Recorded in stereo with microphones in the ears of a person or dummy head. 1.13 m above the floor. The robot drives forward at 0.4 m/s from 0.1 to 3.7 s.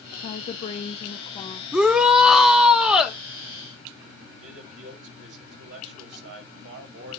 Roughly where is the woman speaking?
Left.